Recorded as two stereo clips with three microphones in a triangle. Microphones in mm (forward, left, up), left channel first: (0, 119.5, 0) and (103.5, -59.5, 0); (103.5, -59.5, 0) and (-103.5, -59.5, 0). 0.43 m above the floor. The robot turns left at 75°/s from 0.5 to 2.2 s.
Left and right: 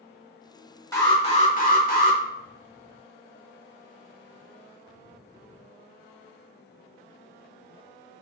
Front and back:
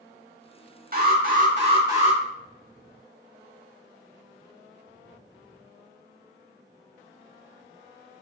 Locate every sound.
0.9 s an alarm: 170° right, 0.9 m; by 2.2 s 95° left, 0.9 m